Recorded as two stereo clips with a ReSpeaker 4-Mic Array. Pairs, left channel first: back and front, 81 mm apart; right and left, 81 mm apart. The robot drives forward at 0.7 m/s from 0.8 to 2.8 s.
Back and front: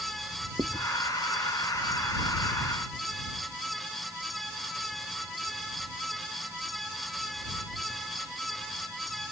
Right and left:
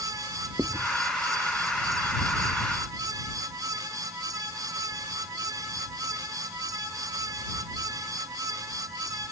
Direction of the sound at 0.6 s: 30° left.